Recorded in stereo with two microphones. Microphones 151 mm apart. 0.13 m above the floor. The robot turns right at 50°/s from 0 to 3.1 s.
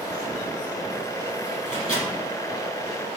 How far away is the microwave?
About 1.5 m.